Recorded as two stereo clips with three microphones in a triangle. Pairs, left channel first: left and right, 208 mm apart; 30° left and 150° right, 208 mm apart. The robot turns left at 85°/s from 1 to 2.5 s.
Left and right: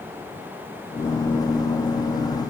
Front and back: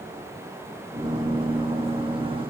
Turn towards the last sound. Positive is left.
No sound to turn to.